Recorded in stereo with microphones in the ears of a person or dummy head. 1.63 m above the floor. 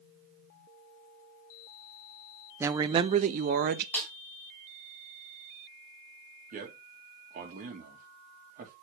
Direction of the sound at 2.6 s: 10° right (ahead or behind).